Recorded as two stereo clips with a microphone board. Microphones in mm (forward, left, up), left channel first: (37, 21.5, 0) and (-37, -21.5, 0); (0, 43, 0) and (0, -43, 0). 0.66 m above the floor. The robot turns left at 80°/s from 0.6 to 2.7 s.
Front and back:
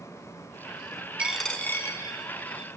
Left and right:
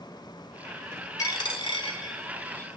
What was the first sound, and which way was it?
A dropped coin, 135° left.